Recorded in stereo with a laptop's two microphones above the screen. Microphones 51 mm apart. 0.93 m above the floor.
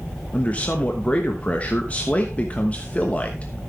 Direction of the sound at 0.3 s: 25° left (ahead or behind).